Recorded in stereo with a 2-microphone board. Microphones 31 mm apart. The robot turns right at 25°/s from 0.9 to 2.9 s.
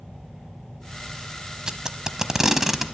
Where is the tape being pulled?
25° right (ahead or behind), 0.8 m; by 2.9 s 10° right (ahead or behind), 0.8 m.